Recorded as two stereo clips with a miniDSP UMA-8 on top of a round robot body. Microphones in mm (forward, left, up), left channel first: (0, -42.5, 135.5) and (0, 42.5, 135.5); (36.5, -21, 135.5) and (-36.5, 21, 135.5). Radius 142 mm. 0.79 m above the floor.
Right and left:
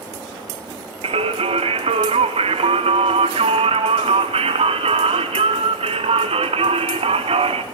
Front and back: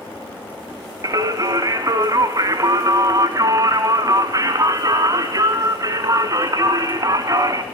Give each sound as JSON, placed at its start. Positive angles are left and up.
{"t": 1.0, "sound": "singing", "azimuth_deg": 95, "distance_m": 1.7}